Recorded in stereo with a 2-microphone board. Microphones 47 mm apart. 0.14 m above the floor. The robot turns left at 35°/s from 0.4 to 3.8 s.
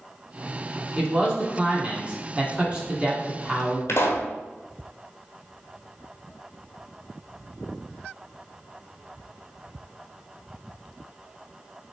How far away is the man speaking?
About 1.2 m.